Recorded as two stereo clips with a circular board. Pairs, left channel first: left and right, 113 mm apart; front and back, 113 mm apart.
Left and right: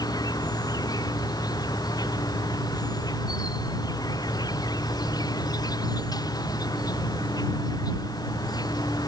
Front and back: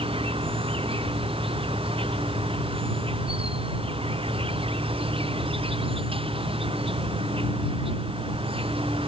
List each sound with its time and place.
0.0 s an insect: 145° left